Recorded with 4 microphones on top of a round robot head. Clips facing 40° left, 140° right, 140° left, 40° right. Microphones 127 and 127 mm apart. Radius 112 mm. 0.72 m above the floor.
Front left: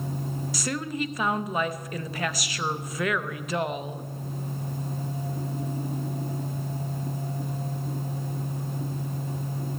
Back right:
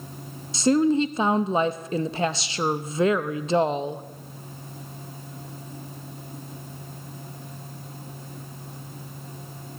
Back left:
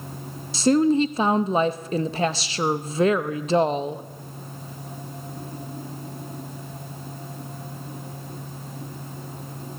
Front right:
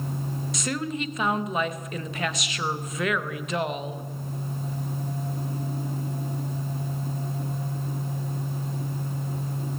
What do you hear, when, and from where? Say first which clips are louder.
0.5 s a woman speaking: back right 13 dB, back left 14 dB; 175° left, 0.8 m